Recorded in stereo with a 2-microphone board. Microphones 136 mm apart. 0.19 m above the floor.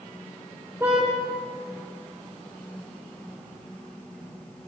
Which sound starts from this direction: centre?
A car horn, at 0.8 s.